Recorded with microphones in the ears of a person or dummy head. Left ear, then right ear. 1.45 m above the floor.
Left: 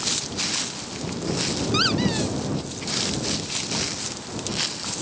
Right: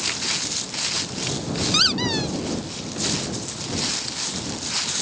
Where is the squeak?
15° right (ahead or behind).